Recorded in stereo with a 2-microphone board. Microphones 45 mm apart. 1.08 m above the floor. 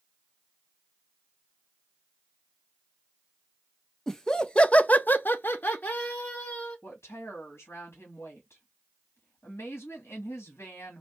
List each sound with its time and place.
4.1 s laughter: 10° left (ahead or behind), 1.0 m; by 6.8 s 35° left (ahead or behind), 1.4 m
6.8 s a woman speaking: 80° left, 1.9 m